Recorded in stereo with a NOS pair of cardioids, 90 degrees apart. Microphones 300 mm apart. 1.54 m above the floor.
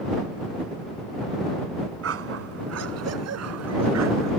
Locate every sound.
2.0 s a dog barking: 55° right; by 4.3 s 65° right